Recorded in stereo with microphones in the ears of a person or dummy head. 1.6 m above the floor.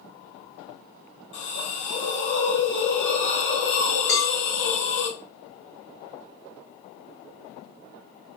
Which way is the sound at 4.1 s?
25° left (ahead or behind).